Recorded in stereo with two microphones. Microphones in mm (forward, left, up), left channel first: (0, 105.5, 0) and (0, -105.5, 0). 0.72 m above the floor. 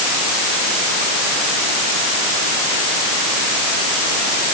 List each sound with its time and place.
Only background noise.